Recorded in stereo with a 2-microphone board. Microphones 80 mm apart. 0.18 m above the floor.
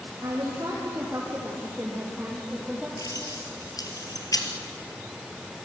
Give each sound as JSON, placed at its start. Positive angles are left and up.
{"t": 0.2, "sound": "a woman speaking", "side_deg": -45, "distance_m": 5.5}
{"t": 3.0, "sound": "keys jangling", "side_deg": 50, "distance_m": 2.5}